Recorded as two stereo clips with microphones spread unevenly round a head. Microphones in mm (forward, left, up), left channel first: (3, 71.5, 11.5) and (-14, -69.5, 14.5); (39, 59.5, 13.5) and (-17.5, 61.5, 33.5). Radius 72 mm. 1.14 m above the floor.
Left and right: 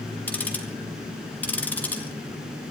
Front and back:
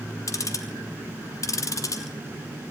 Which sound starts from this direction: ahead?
Ticking, at 0.3 s.